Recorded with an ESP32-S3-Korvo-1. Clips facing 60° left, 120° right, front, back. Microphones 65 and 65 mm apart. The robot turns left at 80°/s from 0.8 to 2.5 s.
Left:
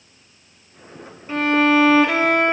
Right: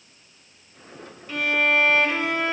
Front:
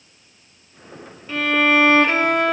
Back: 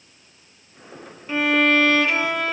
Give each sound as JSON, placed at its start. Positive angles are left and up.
{"t": 1.3, "sound": "a violin", "azimuth_deg": 115, "distance_m": 0.6}